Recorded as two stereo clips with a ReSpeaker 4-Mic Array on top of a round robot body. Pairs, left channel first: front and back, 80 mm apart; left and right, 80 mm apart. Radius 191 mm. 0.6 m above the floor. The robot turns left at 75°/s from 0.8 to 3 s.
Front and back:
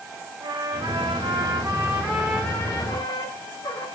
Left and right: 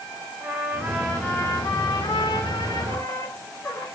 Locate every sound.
0.4 s a trumpet: 165° right, 5 m; by 3.9 s 30° left, 5 m